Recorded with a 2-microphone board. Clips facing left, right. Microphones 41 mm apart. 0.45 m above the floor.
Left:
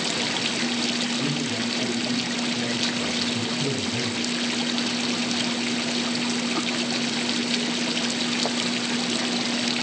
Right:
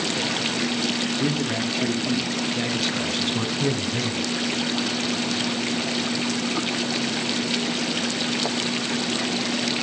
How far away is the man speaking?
About 5.5 m.